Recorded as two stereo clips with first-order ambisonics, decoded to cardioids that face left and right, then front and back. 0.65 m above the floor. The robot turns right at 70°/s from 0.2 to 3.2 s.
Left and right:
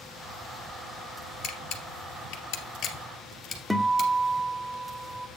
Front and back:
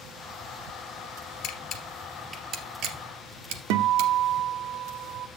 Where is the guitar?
175° left, 0.6 m.